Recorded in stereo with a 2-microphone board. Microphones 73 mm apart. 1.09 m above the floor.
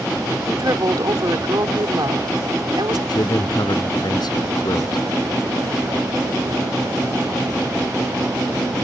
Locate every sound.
0.5 s a woman speaking: 55° right (ahead or behind); by 3.0 s 80° right
3.1 s a man speaking: 70° left (ahead or behind)